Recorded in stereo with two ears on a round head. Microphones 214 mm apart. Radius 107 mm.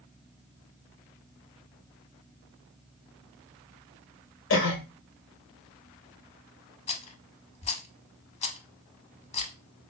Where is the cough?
55° left (ahead or behind), 1.8 m.